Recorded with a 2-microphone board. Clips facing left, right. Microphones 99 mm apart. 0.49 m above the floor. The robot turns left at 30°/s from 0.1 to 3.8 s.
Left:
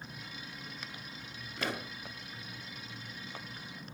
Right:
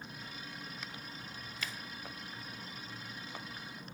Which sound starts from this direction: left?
A pop, at 1.6 s.